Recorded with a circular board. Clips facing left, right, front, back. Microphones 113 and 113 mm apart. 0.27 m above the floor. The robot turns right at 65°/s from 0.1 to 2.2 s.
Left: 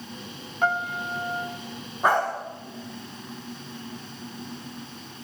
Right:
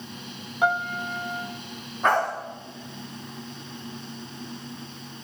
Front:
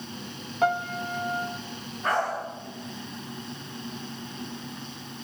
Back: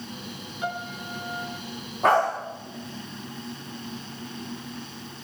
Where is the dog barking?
165° left, 7 m; by 2.3 s 175° left, 7 m.